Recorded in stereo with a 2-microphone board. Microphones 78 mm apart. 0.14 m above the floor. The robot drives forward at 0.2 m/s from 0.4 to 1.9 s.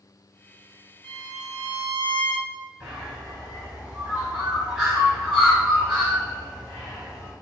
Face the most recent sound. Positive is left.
turn(degrees=-5)  # may be behind; listen again after turning